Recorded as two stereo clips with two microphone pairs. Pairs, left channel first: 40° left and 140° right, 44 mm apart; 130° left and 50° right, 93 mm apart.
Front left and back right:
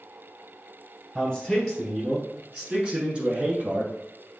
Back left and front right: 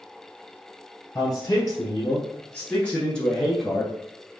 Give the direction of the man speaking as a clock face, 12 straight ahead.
8 o'clock.